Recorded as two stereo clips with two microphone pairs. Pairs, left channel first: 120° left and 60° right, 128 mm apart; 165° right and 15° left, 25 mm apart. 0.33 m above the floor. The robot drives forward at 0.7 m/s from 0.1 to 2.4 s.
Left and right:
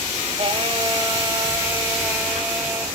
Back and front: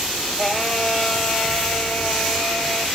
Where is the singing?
80° right, 1.4 m; by 2.9 s 140° right, 1.8 m.